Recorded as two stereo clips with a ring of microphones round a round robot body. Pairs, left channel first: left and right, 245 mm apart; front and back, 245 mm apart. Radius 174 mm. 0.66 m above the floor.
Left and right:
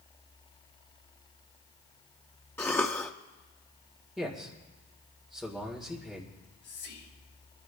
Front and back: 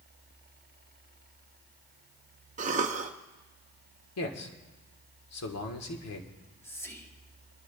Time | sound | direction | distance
2.6 | a cough | 165° left | 0.7 m
4.2 | a man speaking | straight ahead | 1.7 m
6.3 | whispering | 80° left | 4 m